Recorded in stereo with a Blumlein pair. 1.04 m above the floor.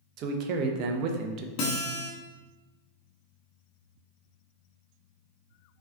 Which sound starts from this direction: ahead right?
A man speaking, at 0.2 s.